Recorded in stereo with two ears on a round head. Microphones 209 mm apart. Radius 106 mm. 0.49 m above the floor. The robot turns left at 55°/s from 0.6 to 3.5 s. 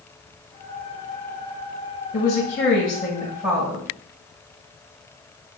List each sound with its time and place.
2.1 s a woman speaking: 65° left, 3 m; by 3.9 s 10° right, 3 m